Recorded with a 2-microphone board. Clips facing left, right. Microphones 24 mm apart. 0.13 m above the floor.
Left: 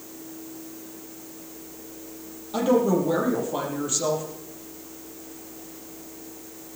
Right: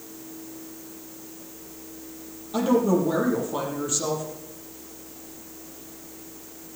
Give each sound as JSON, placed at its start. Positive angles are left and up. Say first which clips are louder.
{"t": 2.5, "sound": "a woman speaking", "louder": "even", "side_deg": 5, "distance_m": 4.5}